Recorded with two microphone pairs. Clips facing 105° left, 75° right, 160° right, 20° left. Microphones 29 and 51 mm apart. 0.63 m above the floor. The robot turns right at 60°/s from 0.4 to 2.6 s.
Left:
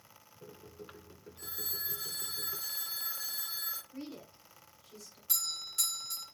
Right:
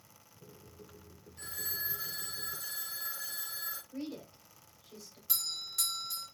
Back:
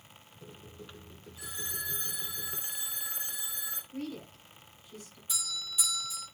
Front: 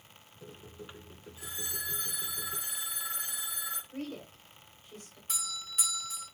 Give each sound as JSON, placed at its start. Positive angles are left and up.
{"t": 1.4, "sound": "a phone ringing", "azimuth_deg": -45, "distance_m": 3.5}
{"t": 3.9, "sound": "a woman speaking", "azimuth_deg": -5, "distance_m": 3.0}
{"t": 5.3, "sound": "a doorbell", "azimuth_deg": 10, "distance_m": 3.5}